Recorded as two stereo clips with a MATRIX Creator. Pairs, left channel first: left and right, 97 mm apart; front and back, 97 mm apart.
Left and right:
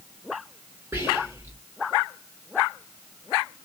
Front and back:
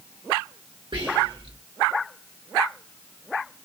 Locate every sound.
0.9 s whispering: 155° right, 1.5 m